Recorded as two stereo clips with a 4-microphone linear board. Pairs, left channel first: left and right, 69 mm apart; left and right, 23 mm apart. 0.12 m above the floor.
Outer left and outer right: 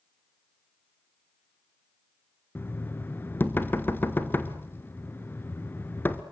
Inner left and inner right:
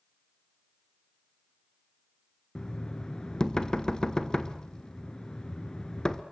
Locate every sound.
2.5 s knocking: 30° left (ahead or behind), 1.4 m